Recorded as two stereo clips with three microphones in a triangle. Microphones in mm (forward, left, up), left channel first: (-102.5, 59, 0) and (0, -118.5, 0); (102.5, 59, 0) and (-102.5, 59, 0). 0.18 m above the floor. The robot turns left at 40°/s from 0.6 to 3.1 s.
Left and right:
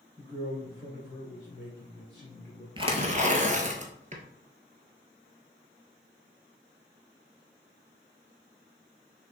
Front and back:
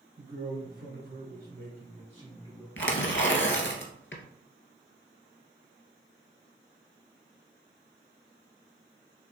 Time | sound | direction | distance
0.2 | a man speaking | 165° right | 1.8 m
2.8 | tearing paper | 5° left | 0.9 m